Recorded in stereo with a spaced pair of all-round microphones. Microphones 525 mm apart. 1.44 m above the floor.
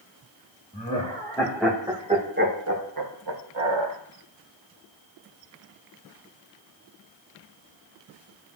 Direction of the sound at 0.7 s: 15° left (ahead or behind).